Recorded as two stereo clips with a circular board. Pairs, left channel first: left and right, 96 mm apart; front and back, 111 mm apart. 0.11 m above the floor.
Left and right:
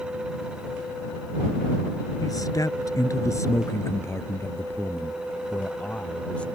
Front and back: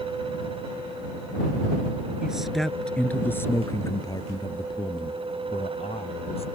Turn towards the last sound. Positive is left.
turn(degrees=10)